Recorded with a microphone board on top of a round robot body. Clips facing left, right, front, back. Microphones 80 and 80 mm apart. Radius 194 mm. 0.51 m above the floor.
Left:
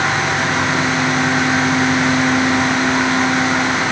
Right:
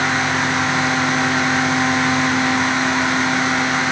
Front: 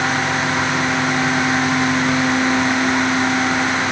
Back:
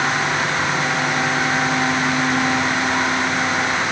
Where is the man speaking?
I don't hear a man speaking.